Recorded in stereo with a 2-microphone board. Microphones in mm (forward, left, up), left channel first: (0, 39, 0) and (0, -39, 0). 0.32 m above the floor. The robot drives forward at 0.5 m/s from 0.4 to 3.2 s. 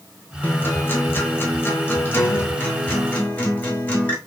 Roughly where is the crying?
I don't hear crying.